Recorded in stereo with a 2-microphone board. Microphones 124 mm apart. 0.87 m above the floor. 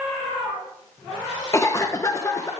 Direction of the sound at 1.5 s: 25° left (ahead or behind).